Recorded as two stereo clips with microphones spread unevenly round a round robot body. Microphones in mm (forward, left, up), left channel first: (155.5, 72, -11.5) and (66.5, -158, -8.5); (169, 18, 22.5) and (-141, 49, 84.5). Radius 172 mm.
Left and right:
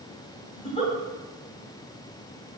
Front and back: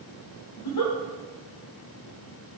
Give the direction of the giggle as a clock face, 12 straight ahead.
12 o'clock.